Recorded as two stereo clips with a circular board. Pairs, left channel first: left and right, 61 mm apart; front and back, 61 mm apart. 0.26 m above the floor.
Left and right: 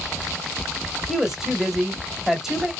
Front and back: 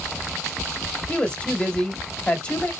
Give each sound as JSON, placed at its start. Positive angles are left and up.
{"t": 1.1, "sound": "a woman speaking", "azimuth_deg": -15, "distance_m": 0.9}